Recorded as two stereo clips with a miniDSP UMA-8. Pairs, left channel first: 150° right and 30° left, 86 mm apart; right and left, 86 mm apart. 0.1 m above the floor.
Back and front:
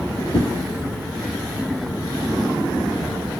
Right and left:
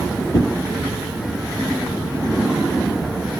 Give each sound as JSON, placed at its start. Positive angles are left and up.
{"t": 0.3, "sound": "a whoosh", "azimuth_deg": -130, "distance_m": 1.2}